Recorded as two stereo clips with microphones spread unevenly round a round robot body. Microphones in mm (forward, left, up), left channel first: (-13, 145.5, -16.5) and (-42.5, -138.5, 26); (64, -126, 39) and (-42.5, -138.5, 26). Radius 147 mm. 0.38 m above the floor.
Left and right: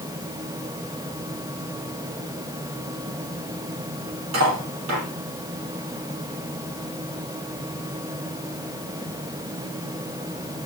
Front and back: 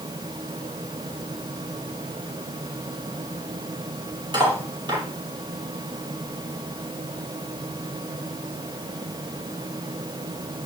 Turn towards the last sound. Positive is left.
turn(degrees=-130)